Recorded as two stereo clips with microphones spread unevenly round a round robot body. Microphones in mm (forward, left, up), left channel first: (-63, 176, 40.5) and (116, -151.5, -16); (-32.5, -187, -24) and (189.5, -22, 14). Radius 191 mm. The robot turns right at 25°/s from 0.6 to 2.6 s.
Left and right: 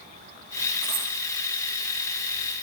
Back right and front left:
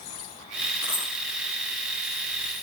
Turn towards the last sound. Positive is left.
turn(degrees=-65)